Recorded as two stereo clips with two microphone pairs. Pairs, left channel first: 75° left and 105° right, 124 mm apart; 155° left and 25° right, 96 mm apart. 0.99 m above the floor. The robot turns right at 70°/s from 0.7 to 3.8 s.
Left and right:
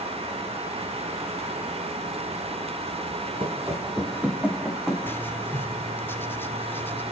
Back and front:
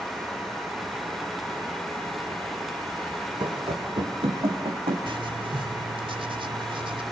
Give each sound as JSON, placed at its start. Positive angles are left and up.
{"t": 3.4, "sound": "running footsteps", "azimuth_deg": -60, "distance_m": 4.0}
{"t": 5.1, "sound": "writing", "azimuth_deg": 5, "distance_m": 1.8}